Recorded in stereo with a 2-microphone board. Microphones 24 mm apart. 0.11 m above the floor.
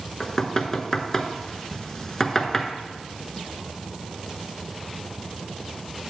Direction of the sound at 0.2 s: 20° left (ahead or behind).